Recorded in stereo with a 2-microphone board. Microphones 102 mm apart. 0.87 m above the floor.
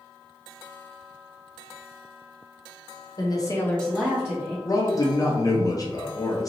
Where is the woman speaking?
40° left (ahead or behind), 1.0 m; by 4.5 s 25° right (ahead or behind), 1.4 m.